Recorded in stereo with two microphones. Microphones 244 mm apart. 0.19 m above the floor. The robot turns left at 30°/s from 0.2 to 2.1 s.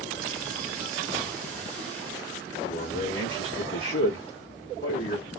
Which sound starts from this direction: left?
A man speaking, at 2.7 s.